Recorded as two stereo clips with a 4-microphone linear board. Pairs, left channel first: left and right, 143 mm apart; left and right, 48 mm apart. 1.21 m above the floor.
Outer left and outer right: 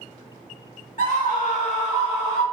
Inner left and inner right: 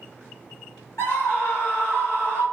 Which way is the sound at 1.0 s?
65° left (ahead or behind).